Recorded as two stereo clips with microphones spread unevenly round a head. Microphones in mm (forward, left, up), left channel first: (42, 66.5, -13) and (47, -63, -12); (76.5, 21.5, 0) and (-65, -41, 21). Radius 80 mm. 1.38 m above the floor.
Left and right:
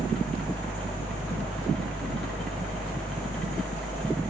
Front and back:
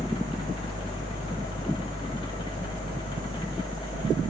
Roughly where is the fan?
Ahead.